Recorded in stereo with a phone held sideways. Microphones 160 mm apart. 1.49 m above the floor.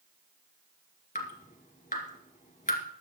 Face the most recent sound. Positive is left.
turn(degrees=55)  # may be behind; listen again after turning